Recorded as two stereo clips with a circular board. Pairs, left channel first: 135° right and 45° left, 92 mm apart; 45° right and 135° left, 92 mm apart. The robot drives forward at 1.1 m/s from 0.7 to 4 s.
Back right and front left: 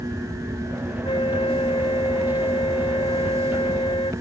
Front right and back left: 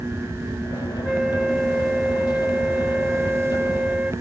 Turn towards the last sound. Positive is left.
turn(degrees=-145)